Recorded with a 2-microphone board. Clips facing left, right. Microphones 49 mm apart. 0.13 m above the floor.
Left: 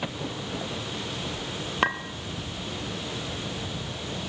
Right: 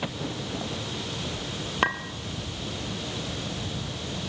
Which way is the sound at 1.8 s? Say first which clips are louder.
Even; centre (ahead or behind).